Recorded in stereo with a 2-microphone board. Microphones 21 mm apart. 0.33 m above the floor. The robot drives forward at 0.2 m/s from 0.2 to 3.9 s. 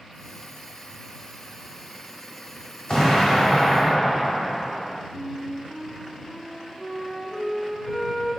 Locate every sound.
2.9 s an explosion: 45° left (ahead or behind), 1.4 m
5.1 s a flute: 35° left (ahead or behind), 1.1 m